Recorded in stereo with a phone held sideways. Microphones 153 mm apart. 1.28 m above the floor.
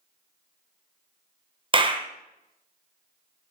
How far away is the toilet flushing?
I don't hear a toilet flushing.